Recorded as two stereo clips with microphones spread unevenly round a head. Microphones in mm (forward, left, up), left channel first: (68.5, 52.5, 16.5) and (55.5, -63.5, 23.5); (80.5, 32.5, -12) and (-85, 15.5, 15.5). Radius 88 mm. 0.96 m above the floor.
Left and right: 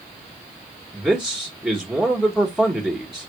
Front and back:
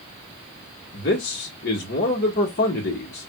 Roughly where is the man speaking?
Ahead.